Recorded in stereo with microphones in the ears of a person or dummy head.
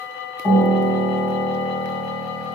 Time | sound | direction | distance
0.4 | a piano | 15° left (ahead or behind) | 2.5 m